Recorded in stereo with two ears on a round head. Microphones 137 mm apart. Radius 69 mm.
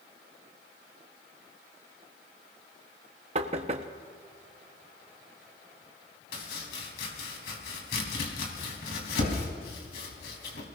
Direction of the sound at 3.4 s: 45° right (ahead or behind).